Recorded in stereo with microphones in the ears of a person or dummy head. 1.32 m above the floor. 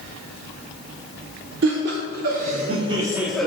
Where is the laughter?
60° right (ahead or behind), 1.1 m; by 3.5 s 5° left (ahead or behind), 0.6 m.